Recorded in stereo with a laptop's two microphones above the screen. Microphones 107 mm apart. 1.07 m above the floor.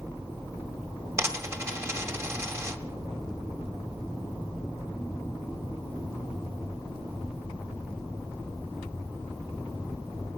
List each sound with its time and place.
1.2 s a dropped coin: 25° right (ahead or behind), 1.7 m